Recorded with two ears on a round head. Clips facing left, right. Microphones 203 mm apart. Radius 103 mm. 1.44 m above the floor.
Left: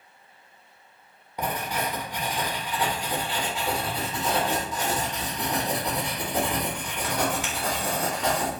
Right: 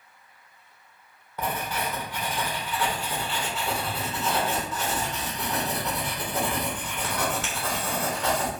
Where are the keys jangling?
I don't hear keys jangling.